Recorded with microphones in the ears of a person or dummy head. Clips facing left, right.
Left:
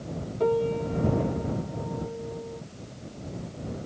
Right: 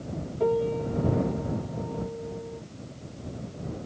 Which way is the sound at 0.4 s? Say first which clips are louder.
Even; 5° left (ahead or behind).